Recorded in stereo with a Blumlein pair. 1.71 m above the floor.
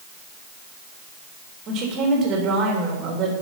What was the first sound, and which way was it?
A woman speaking, 30° right.